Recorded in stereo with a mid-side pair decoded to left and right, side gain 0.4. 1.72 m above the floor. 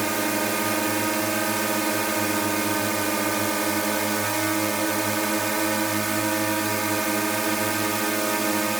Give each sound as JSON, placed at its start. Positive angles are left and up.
{"t": 0.0, "sound": "a drone", "azimuth_deg": -15}